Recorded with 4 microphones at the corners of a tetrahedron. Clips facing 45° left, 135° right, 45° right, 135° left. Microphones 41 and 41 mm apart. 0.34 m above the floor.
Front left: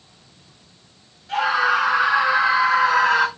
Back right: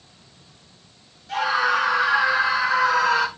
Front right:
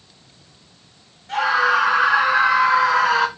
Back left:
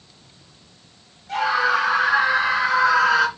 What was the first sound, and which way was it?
A scream, 25° right.